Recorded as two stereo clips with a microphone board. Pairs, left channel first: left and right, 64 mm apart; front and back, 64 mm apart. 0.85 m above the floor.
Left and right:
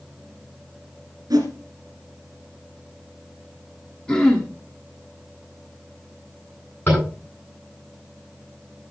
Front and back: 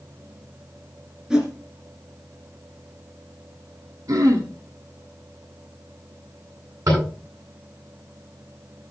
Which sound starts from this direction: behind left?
Tapping, at 6.9 s.